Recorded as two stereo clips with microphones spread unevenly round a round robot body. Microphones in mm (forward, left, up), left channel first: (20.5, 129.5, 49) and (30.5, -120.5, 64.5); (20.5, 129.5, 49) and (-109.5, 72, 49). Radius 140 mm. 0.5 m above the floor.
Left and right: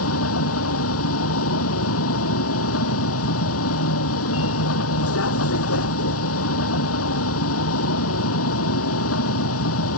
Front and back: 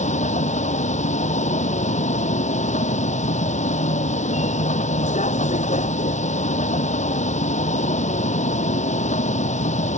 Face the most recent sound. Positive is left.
turn(degrees=60)